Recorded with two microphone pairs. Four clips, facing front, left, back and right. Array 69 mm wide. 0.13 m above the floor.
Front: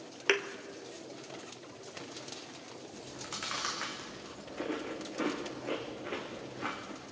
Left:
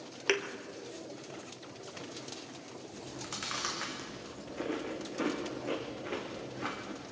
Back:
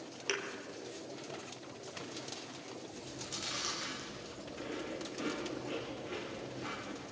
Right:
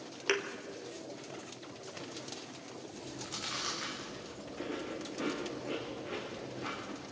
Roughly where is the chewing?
Ahead left.